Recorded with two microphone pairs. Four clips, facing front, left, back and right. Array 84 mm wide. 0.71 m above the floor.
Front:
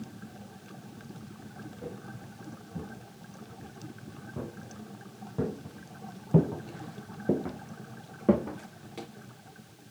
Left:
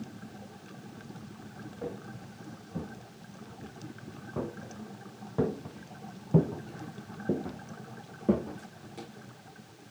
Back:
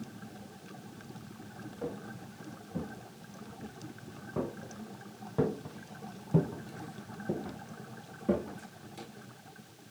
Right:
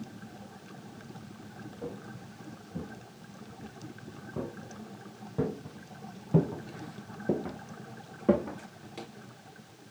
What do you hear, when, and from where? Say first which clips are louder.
1.8 s footsteps: left 2 dB, back 4 dB; 135° left, 5 m; by 9.1 s 35° right, 3.5 m